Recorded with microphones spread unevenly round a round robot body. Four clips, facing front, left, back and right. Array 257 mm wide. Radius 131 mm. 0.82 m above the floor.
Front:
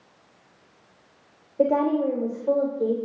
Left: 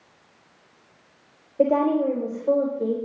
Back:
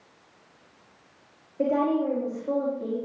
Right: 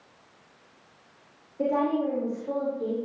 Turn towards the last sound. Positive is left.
turn(degrees=40)